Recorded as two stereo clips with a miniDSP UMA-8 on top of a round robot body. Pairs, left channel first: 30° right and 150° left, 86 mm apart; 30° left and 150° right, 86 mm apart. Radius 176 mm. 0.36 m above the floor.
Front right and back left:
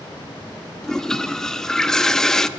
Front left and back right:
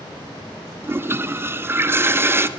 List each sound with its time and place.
0.8 s a toilet flushing: 110° right, 0.5 m